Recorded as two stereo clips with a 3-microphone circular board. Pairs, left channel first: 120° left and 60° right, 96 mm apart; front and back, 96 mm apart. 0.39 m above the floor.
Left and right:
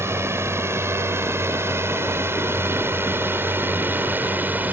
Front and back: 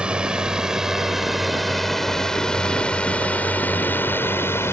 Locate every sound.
0.0 s a drone: 105° right; by 4.7 s 15° right